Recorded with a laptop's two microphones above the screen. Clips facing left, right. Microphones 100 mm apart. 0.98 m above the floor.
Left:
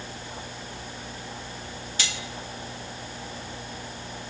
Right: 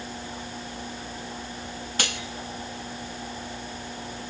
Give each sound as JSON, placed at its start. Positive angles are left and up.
{"t": 2.0, "sound": "cutlery clinking", "side_deg": -60, "distance_m": 0.7}